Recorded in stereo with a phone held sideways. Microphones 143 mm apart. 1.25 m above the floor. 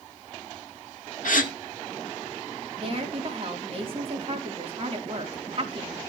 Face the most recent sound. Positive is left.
turn(degrees=-45)  # may be behind; listen again after turning